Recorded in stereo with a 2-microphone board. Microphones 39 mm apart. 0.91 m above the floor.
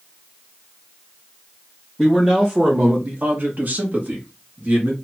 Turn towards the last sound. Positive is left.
turn(degrees=-45)  # may be behind; listen again after turning